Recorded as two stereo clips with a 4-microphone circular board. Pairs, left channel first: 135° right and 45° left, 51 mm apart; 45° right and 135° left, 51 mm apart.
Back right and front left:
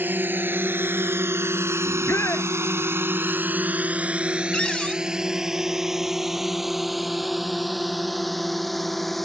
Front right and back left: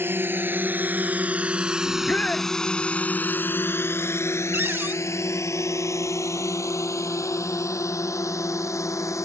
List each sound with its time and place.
0.0 s a drone: 90° left; by 9.2 s 50° right
1.9 s a shout: 110° right
4.5 s a cupboard door: 160° left